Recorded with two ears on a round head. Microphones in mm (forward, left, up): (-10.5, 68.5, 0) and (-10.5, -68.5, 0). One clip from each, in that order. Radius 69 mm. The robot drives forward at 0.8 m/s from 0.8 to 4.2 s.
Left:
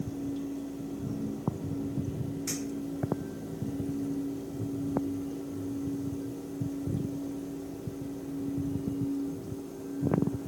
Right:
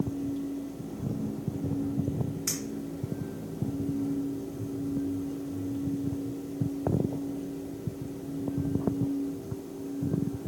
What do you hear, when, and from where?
2.5 s a clink: 30° right (ahead or behind), 3 m